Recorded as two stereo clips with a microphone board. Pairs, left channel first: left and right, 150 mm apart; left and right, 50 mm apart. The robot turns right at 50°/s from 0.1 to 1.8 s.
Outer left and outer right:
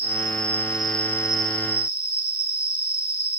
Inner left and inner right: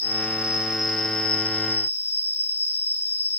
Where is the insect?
40° right, 6 m; by 3.4 s 45° left, 6 m.